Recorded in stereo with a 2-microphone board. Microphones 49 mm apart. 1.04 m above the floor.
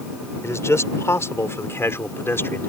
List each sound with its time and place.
0.4 s a man speaking: 75° left (ahead or behind); by 2.7 s 50° left (ahead or behind)